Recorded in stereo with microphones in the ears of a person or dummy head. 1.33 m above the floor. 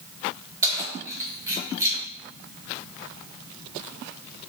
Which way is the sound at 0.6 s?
15° right (ahead or behind).